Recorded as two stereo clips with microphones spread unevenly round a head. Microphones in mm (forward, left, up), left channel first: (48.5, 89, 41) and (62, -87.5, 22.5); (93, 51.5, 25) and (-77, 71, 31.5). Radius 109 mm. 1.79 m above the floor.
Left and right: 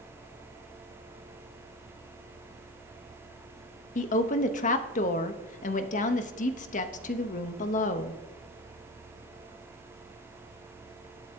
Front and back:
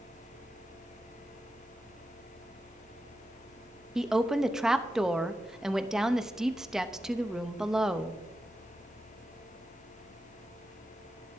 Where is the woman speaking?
90° left, 0.6 m.